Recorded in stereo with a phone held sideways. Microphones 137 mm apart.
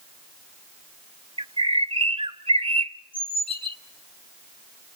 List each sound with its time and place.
1.4 s a bird: 40° right (ahead or behind), 0.9 m